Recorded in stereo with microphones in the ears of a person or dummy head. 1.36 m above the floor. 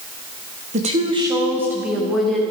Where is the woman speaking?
40° right (ahead or behind), 1.0 m; by 2.4 s centre (ahead or behind), 1.9 m.